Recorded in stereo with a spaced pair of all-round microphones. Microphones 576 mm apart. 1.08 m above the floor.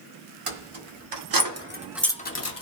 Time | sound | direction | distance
0.5 | keys jangling | 60° right (ahead or behind) | 1.0 m